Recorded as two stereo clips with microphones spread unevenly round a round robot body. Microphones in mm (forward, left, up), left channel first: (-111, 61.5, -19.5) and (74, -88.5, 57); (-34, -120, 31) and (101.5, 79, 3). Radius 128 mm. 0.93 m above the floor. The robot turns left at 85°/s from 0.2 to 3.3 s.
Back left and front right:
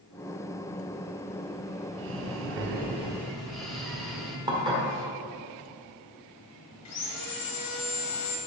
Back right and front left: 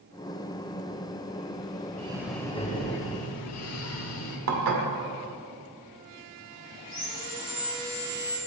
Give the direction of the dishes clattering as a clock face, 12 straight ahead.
11 o'clock.